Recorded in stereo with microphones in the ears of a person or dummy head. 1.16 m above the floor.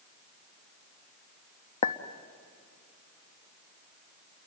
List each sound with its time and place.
1.8 s a clink: 40° left (ahead or behind), 0.8 m